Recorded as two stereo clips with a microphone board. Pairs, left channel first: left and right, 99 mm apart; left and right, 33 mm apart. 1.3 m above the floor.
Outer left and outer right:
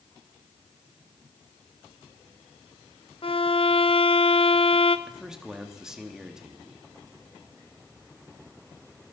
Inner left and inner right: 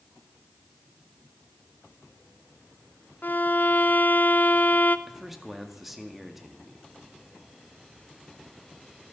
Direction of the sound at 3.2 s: 65° left (ahead or behind).